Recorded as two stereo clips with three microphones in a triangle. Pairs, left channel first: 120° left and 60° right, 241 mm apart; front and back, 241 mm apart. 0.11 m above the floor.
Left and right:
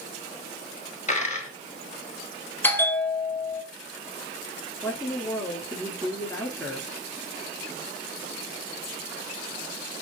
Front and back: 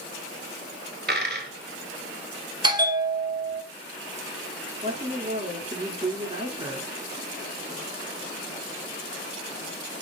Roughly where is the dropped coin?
Behind.